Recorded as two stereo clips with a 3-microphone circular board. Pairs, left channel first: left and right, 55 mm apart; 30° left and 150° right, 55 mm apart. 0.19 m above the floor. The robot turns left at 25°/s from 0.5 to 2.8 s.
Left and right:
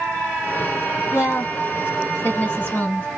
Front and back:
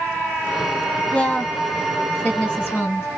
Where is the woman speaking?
95° left, 2 m; by 3.1 s 55° left, 2 m.